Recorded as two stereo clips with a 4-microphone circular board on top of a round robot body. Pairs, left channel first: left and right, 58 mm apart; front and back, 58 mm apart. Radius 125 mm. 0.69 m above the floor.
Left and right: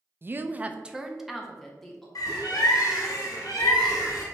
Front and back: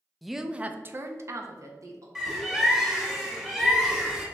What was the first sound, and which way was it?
A woman speaking, 85° right.